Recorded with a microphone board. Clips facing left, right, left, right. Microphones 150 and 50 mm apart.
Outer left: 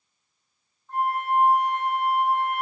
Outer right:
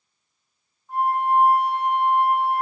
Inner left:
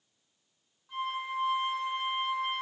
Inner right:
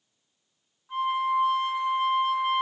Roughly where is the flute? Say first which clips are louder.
Outer right 4 dB, inner right 9 dB; centre.